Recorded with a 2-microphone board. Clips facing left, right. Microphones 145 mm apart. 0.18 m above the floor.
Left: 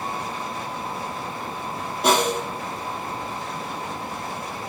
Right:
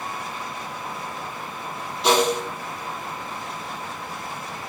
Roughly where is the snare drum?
Left.